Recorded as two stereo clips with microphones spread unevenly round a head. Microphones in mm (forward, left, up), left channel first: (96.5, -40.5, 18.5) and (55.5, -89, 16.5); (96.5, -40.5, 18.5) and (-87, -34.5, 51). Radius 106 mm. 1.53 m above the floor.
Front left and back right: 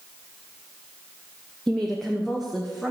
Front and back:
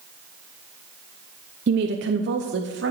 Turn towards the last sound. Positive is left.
turn(degrees=140)